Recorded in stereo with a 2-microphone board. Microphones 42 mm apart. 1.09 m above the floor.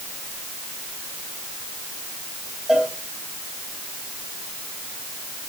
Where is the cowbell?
15° right (ahead or behind), 6 m.